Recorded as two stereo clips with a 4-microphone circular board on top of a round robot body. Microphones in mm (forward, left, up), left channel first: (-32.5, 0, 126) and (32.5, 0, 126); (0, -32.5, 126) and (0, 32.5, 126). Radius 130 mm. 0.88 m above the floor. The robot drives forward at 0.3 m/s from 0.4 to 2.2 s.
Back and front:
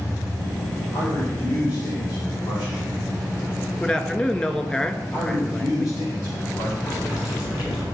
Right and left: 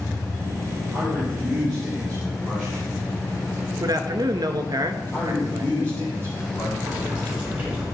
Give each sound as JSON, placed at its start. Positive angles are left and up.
{"t": 0.9, "sound": "a man speaking", "azimuth_deg": 175, "distance_m": 3.5}
{"t": 3.8, "sound": "a man speaking", "azimuth_deg": 110, "distance_m": 1.2}
{"t": 5.1, "sound": "a man speaking", "azimuth_deg": -155, "distance_m": 4.5}
{"t": 6.8, "sound": "boiling", "azimuth_deg": 160, "distance_m": 4.5}